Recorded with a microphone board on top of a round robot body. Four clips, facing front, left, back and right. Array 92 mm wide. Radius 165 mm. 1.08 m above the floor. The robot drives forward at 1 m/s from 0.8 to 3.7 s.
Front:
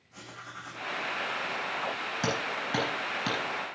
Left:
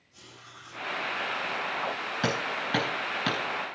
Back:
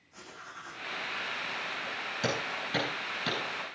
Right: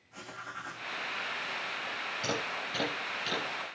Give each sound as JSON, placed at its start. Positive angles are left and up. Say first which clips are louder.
{"t": 0.1, "sound": "writing", "louder": "right 8 dB, front 2 dB", "azimuth_deg": -50, "distance_m": 7.0}
{"t": 2.2, "sound": "hammering", "louder": "left 6 dB, front 2 dB", "azimuth_deg": 70, "distance_m": 9.5}